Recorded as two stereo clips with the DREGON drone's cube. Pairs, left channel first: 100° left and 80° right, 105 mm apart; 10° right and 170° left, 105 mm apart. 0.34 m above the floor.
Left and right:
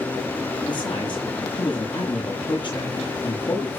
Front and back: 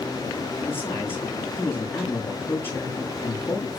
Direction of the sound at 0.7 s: 60° left.